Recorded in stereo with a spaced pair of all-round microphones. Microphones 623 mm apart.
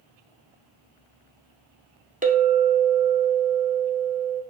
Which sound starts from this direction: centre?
A clink, at 2.2 s.